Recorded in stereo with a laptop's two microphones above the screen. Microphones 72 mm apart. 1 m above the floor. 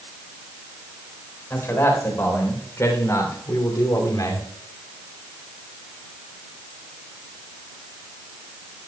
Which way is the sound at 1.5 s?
35° left (ahead or behind).